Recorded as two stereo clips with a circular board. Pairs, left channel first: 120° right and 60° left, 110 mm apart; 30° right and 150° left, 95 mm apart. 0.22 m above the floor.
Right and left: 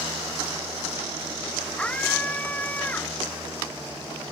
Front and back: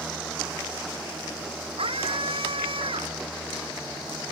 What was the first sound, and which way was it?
A scream, 160° left.